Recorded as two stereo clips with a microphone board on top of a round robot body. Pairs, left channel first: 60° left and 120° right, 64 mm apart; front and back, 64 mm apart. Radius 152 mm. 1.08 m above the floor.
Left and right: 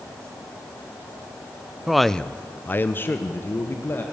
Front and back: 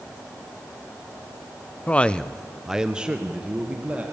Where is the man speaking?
40° right, 0.7 m; by 4.0 s 115° left, 1.9 m.